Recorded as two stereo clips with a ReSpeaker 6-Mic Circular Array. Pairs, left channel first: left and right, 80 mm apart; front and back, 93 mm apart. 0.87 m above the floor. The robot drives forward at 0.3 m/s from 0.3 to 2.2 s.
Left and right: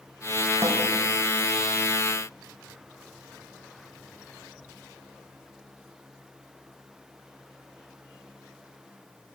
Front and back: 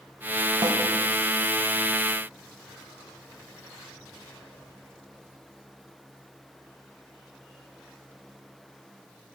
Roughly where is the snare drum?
Behind right.